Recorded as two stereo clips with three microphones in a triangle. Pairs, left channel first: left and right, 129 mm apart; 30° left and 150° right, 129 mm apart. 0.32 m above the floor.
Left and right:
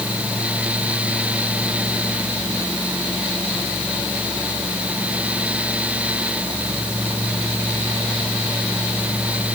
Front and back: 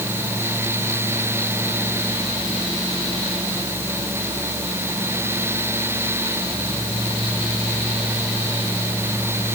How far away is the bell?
I don't hear a bell.